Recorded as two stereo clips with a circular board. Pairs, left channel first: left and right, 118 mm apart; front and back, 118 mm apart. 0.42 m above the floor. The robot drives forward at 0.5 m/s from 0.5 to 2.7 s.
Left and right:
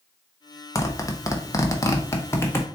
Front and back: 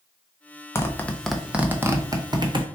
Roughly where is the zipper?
Ahead left.